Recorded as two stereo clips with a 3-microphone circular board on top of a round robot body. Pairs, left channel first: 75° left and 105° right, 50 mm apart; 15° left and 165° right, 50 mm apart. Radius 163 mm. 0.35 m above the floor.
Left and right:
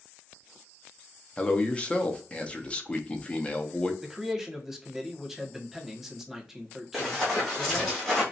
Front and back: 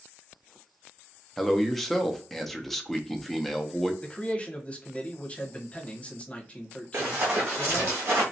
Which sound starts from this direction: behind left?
Running footsteps, at 6.9 s.